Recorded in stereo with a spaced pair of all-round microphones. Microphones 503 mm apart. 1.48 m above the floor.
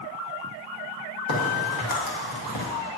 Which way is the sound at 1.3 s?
45° left (ahead or behind).